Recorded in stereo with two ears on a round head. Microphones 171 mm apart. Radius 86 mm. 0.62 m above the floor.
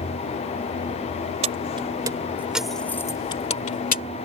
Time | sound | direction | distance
1.4 | keys jangling | 35° right (ahead or behind) | ?